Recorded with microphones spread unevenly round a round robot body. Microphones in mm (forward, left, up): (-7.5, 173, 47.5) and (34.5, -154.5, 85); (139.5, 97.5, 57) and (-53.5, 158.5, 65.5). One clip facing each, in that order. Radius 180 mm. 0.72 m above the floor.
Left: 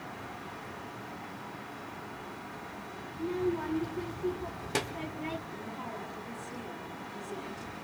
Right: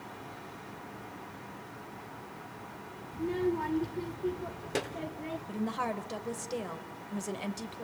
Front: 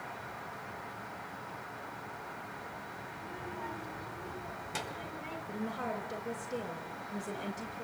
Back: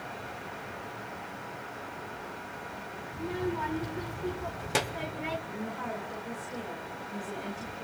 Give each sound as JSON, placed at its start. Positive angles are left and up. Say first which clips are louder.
{"t": 3.1, "sound": "a child speaking", "louder": "right 1 dB, back 14 dB", "azimuth_deg": -155, "distance_m": 1.4}
{"t": 5.5, "sound": "a woman speaking", "louder": "right 7 dB, back 1 dB", "azimuth_deg": -80, "distance_m": 3.5}